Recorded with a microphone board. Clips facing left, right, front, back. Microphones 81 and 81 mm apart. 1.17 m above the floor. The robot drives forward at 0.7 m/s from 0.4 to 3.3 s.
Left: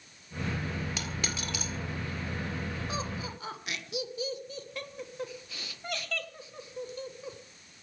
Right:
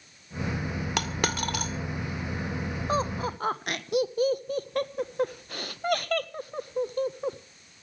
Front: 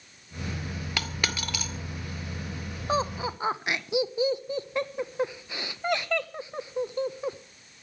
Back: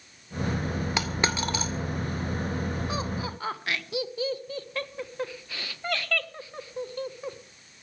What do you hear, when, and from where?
1.0 s a dropped coin: 110° right, 1.7 m; by 1.7 s 125° right, 2.0 m
2.9 s laughter: 55° right, 1.3 m; by 7.4 s 70° right, 1.2 m